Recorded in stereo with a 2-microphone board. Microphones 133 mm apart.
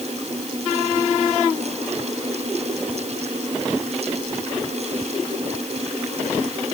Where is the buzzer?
I don't hear a buzzer.